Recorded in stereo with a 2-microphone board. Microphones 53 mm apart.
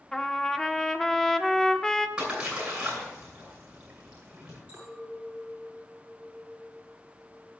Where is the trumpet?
10° left (ahead or behind), 0.8 m.